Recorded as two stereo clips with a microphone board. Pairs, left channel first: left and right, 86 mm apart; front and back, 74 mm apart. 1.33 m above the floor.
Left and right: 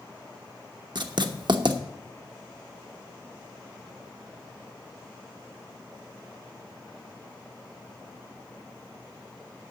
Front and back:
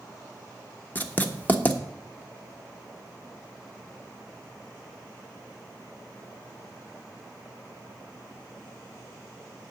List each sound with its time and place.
0.9 s writing: 65° right, 1.0 m